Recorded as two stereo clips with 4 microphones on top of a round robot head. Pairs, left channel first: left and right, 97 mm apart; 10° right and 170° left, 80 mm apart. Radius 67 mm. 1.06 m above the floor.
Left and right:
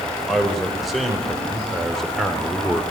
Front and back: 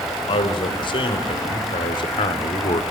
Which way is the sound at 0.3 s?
Straight ahead.